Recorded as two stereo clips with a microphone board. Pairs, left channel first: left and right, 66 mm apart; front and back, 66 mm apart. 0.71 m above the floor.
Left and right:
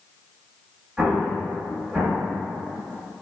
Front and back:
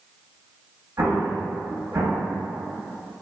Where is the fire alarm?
I don't hear a fire alarm.